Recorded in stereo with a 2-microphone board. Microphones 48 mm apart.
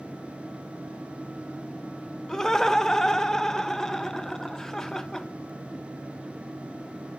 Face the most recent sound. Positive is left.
turn(degrees=10)  # may be behind; listen again after turning